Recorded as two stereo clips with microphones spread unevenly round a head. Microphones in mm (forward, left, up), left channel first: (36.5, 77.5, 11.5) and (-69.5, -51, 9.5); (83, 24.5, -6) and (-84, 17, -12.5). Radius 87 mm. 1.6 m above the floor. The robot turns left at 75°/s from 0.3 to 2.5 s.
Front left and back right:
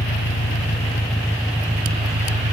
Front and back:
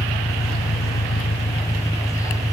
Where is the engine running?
50° left; by 2.5 s 115° right.